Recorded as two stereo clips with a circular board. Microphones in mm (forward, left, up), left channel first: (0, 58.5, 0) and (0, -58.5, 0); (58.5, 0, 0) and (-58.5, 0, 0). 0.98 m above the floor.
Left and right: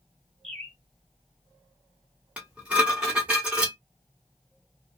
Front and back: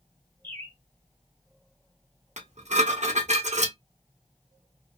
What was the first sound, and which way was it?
A bird, 75° right.